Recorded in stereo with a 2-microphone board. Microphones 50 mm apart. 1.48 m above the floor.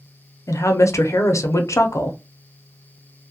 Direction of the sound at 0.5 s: 80° left.